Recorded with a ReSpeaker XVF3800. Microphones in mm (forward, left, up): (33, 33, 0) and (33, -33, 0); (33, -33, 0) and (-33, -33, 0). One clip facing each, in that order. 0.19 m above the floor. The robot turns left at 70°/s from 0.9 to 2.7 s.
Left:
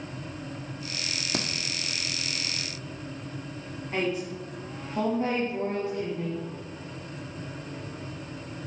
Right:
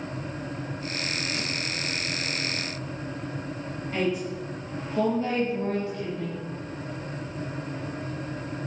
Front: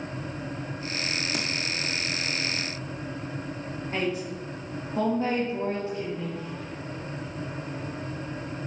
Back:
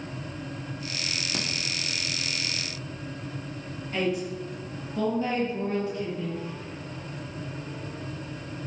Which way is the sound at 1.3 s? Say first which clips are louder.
Left 1 dB, front 2 dB; 90° left.